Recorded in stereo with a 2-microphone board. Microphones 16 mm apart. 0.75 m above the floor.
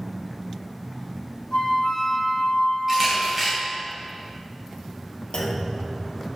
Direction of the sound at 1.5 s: 70° left (ahead or behind).